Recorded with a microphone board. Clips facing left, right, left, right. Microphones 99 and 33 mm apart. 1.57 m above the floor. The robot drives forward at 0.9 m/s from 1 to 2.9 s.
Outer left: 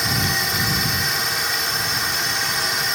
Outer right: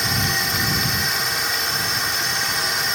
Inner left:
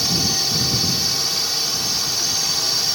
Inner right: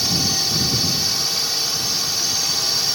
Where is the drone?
Centre (ahead or behind).